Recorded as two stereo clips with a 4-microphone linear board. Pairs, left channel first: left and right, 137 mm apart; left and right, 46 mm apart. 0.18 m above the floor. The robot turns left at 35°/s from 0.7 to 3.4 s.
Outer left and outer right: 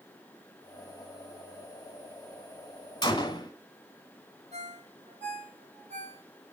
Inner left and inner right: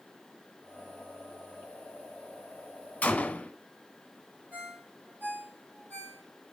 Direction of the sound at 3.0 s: 35° left (ahead or behind).